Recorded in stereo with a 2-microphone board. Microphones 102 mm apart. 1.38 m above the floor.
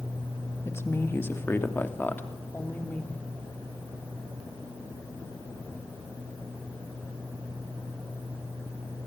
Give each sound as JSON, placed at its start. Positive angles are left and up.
{"t": 0.7, "sound": "a woman speaking", "side_deg": 30, "distance_m": 2.0}